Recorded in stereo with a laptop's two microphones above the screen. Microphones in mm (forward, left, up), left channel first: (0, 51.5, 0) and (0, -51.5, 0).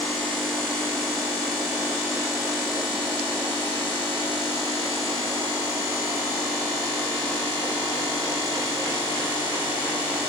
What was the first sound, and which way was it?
Only background noise.